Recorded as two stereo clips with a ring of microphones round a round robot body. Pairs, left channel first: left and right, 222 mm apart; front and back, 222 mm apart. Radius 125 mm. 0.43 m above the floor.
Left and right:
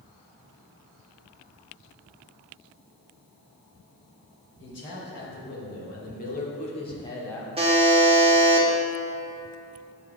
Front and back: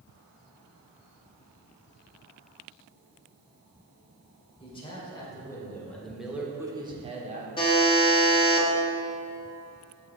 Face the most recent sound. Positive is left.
turn(degrees=-50)